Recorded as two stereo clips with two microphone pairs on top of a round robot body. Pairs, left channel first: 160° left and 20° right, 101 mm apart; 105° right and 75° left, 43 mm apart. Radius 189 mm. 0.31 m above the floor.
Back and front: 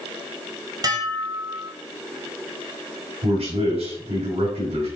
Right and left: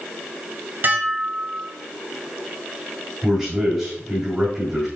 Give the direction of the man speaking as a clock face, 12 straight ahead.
12 o'clock.